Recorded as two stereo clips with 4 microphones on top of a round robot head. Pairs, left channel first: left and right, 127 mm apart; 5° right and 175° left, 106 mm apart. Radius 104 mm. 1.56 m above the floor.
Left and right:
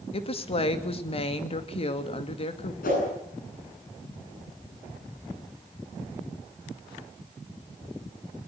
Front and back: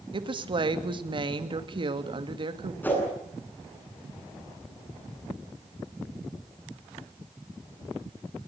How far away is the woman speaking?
About 2.5 m.